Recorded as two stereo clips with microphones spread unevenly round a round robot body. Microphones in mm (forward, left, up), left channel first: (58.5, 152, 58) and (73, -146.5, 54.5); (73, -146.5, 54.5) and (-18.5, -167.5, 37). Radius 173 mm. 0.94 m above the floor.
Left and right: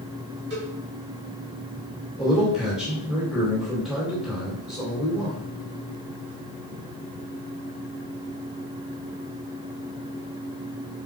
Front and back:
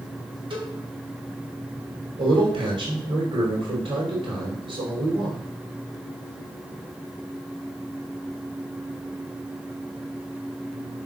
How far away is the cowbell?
About 3 m.